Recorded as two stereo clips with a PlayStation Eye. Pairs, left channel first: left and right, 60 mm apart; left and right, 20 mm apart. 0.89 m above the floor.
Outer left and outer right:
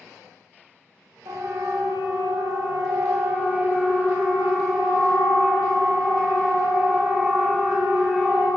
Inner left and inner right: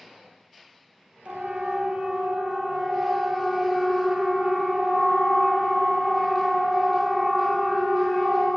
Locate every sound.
1.2 s a siren: 80° right, 3 m; by 8.5 s 25° right (ahead or behind), 8.5 m